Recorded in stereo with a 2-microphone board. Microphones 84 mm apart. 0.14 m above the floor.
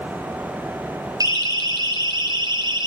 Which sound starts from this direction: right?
A siren, at 1.2 s.